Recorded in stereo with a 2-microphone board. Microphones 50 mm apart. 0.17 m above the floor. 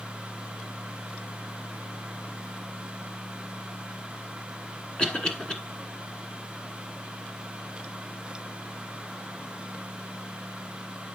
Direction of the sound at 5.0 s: 20° left (ahead or behind).